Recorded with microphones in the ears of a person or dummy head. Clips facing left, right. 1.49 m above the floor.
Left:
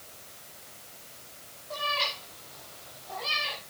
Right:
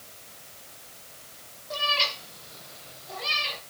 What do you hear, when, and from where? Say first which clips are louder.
1.7 s a cat meowing: right 2 dB; 40° right (ahead or behind), 5 m; by 3.6 s 20° right (ahead or behind), 4 m